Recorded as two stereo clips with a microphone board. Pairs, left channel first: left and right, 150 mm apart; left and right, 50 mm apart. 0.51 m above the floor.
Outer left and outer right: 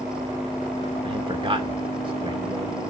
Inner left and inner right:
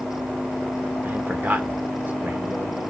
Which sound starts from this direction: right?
A man speaking, at 1.0 s.